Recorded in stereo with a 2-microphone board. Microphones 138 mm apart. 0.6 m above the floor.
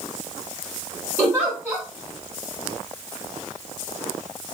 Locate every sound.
1.2 s a giggle: 15° right (ahead or behind), 2.5 m